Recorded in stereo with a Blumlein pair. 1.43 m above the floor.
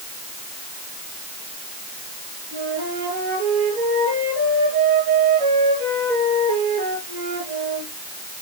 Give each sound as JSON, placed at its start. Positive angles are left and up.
{"t": 2.5, "sound": "a flute", "azimuth_deg": -50, "distance_m": 6.5}